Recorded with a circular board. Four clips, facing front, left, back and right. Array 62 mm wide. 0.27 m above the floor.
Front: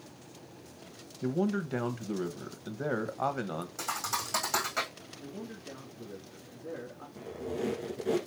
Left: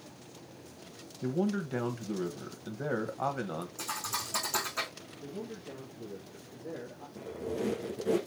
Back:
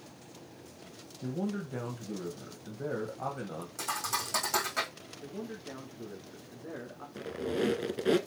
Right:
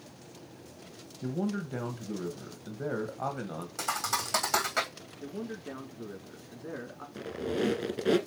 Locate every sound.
1.2 s a man speaking: 15° left, 1.3 m
3.8 s a thud: 75° right, 3 m
5.2 s a man speaking: 95° right, 4 m
7.2 s a squeak: 135° right, 1.2 m